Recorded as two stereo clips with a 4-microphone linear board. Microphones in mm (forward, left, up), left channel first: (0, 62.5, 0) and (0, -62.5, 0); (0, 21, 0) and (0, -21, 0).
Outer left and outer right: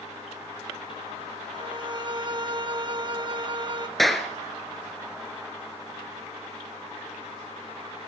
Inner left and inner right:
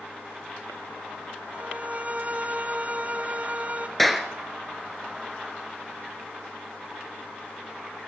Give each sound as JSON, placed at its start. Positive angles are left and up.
{"t": 1.5, "sound": "a violin", "side_deg": -40, "distance_m": 1.0}
{"t": 4.0, "sound": "a clap", "side_deg": 0, "distance_m": 1.9}